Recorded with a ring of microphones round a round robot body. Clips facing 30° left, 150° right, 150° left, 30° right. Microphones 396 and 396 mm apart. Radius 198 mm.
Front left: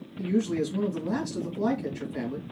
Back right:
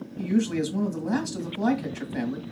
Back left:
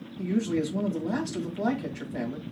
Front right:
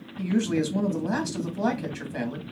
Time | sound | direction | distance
0.2 | a man speaking | 75° right | 2.5 m